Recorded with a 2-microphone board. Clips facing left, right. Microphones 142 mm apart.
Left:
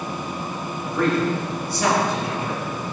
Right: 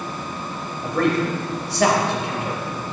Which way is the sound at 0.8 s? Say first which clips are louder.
Right 1 dB; 85° right.